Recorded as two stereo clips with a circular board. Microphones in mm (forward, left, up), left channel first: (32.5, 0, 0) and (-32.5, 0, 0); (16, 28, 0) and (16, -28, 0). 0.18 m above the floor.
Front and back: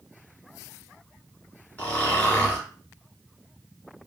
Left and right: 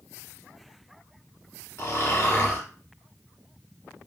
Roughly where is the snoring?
Ahead left.